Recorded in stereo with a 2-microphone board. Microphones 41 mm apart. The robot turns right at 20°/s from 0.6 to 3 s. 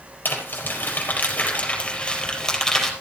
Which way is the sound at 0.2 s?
50° left (ahead or behind).